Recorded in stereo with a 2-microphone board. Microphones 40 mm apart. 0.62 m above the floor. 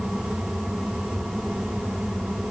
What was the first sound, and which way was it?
Only background noise.